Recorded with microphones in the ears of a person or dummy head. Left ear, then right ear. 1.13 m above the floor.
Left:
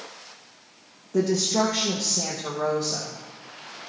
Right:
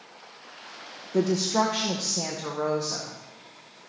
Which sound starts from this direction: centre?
A woman speaking, at 1.1 s.